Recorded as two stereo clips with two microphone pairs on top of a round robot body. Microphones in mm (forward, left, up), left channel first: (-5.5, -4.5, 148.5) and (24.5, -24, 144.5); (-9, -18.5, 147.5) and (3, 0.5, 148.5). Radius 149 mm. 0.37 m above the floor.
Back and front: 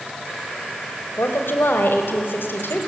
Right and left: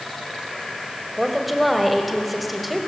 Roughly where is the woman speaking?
Behind left.